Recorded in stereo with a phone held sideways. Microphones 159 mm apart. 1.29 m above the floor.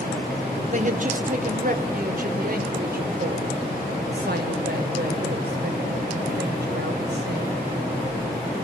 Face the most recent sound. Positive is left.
turn(degrees=-80)